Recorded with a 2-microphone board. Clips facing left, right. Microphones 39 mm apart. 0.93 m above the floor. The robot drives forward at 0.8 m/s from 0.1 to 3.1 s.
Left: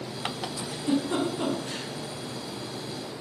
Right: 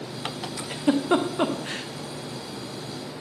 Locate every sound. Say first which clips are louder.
0.6 s a giggle: right 4 dB; 85° right, 1.2 m; by 1.9 s 50° right (ahead or behind), 1.6 m